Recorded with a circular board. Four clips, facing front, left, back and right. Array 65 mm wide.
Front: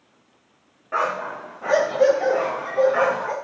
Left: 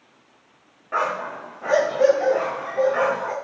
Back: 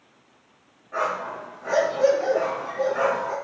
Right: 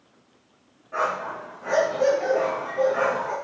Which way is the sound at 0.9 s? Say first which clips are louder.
Left 2 dB, front 3 dB; 45° left.